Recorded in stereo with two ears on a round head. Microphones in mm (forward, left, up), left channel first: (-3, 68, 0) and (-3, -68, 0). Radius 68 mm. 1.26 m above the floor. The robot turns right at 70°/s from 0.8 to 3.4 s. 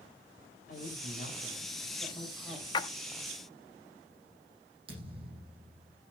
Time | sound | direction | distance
0.7 | a woman speaking | 55° left | 5.5 m
2.7 | a splash | 30° left (ahead or behind) | 0.7 m
4.9 | a thud | 40° right (ahead or behind) | 8 m